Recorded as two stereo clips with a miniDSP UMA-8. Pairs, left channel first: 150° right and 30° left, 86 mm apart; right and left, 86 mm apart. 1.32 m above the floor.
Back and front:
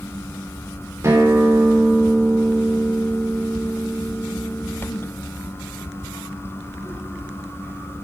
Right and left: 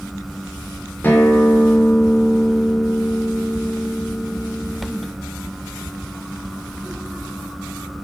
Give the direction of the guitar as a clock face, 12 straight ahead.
1 o'clock.